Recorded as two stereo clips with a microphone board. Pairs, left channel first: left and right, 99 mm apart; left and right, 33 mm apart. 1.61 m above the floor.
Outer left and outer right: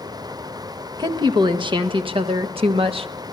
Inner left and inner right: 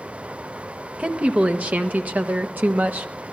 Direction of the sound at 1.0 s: 45° right (ahead or behind).